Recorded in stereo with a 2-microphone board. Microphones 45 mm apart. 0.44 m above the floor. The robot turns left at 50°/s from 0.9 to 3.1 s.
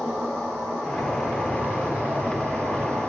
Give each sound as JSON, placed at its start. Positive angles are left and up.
{"t": 0.0, "sound": "an insect", "azimuth_deg": -5, "distance_m": 1.3}